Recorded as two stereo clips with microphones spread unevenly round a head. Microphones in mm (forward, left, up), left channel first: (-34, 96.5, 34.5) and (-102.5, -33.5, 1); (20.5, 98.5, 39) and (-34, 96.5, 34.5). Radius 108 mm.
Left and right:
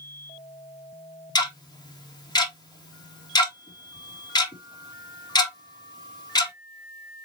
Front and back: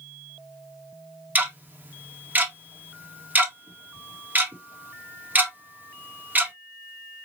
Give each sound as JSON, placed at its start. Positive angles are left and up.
{"t": 1.4, "sound": "ticking", "azimuth_deg": 130, "distance_m": 1.8}